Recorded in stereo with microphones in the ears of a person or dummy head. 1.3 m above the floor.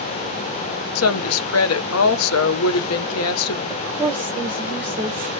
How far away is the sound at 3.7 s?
About 0.6 m.